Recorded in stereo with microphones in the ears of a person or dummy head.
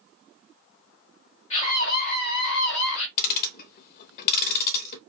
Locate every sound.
1.5 s a scream: 40° left (ahead or behind), 2.5 m; by 3.1 s 85° left, 1.7 m
3.2 s ticking: 55° left (ahead or behind), 0.7 m